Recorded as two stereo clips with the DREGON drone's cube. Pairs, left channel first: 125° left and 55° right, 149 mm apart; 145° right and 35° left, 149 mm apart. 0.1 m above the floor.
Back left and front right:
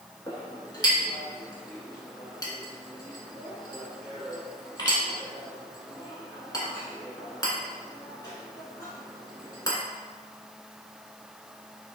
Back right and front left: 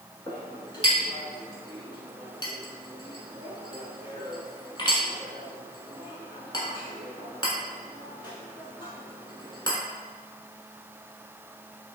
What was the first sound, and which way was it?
A clink, 175° left.